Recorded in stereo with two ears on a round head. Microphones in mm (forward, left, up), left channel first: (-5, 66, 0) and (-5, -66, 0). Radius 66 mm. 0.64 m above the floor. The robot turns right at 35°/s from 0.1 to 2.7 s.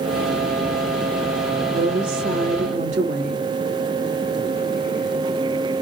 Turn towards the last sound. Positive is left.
turn(degrees=-50)